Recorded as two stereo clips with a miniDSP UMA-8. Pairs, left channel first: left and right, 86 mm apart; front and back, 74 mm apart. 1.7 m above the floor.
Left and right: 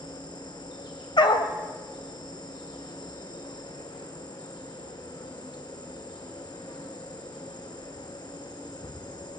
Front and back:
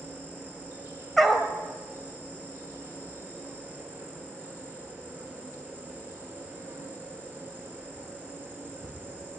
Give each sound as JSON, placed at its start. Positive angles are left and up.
{"t": 0.0, "sound": "an insect", "azimuth_deg": 120, "distance_m": 6.0}
{"t": 1.2, "sound": "a dog barking", "azimuth_deg": 90, "distance_m": 3.0}